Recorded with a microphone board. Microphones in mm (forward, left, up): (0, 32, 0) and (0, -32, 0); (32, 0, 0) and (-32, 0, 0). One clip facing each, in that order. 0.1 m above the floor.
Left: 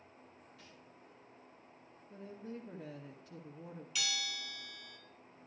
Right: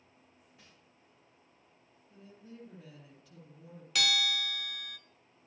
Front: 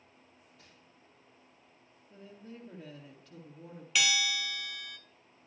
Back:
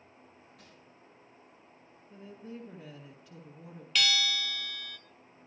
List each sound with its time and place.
0.6 s crumpling: 160° right, 5.5 m
2.1 s a woman speaking: 105° left, 2 m
4.0 s a bell: 80° right, 0.6 m